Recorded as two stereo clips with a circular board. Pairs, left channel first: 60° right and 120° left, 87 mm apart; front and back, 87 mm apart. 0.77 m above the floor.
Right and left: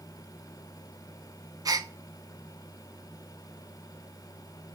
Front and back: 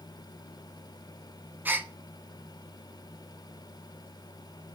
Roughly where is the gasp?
Behind left.